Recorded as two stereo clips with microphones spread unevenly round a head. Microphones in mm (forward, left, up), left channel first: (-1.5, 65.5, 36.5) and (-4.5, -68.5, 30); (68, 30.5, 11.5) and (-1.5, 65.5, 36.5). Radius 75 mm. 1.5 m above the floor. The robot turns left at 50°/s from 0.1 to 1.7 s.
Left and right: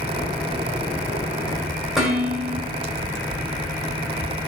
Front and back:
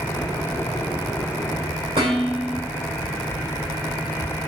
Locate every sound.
2.0 s dishes clattering: straight behind, 5 m